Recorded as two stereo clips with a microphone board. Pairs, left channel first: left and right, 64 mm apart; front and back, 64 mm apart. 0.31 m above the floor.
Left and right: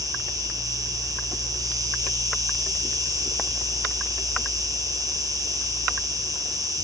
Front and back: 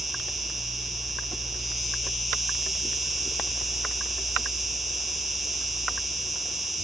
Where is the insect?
95° right, 1.7 m.